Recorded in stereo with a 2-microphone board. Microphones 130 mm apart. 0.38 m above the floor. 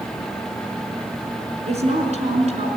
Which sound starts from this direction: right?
A woman speaking, at 1.7 s.